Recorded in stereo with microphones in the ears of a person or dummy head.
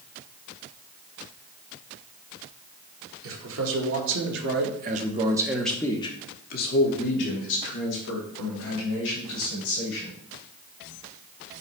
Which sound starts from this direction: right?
A man speaking, at 3.2 s.